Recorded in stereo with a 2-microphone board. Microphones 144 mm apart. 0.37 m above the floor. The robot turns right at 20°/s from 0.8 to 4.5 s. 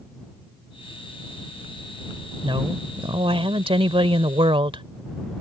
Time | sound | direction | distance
2.4 | a woman speaking | 120° right | ?